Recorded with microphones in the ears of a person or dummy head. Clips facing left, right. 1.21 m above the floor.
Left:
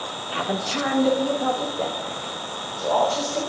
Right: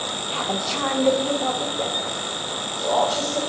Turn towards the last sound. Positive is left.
turn(degrees=-10)  # may be behind; listen again after turning